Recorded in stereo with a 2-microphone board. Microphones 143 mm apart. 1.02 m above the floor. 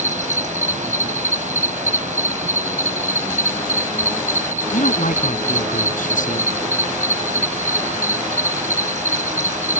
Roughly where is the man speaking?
Left.